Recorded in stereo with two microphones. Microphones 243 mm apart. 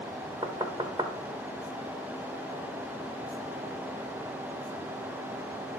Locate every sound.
0.4 s knocking: 20° right (ahead or behind), 1.1 m